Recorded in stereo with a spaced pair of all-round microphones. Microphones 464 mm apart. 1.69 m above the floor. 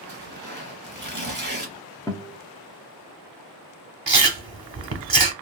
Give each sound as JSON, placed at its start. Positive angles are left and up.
{"t": 0.1, "sound": "tearing paper", "side_deg": -25, "distance_m": 1.1}
{"t": 2.1, "sound": "a guitar", "side_deg": 10, "distance_m": 0.5}
{"t": 4.1, "sound": "chewing", "side_deg": -55, "distance_m": 0.7}